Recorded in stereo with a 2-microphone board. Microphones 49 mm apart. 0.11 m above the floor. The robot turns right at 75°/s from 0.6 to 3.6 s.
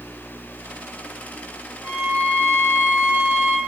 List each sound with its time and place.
1.8 s a violin: 5° right, 1.5 m; by 3.6 s 125° left, 1.5 m